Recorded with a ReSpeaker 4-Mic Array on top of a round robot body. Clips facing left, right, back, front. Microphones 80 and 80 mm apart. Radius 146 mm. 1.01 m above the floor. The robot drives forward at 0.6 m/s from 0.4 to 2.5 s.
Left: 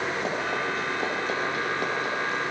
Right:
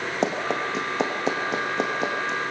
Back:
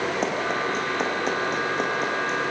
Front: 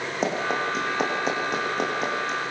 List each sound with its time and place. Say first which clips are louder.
0.2 s running footsteps: right 3 dB, even; 85° right, 3.5 m; by 2.5 s 90° right, 4.5 m